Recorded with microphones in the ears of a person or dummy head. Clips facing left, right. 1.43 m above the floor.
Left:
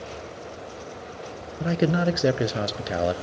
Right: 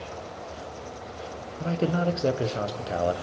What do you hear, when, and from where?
1.6 s a man speaking: 20° left (ahead or behind), 0.7 m